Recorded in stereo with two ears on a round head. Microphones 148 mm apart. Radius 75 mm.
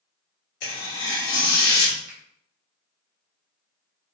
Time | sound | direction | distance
0.6 | tearing paper | 50° left (ahead or behind) | 1.3 m
2.1 | a finger snap | 40° right (ahead or behind) | 1.2 m